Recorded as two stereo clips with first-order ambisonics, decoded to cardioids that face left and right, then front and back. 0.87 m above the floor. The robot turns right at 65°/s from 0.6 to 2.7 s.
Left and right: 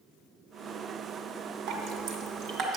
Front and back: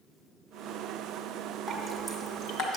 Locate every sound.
1.7 s dripping: 100° right, 1.3 m; by 2.8 s 35° right, 1.3 m